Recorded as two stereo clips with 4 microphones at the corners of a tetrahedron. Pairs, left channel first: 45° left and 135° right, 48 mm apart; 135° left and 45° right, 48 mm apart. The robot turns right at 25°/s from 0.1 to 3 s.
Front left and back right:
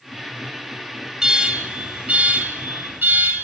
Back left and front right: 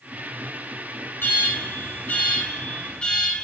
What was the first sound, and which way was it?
An alarm, 150° left.